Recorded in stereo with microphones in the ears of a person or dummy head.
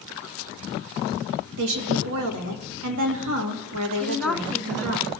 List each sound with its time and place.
1.6 s a woman speaking: 70° right (ahead or behind), 1.5 m
4.0 s a woman speaking: centre (ahead or behind), 0.7 m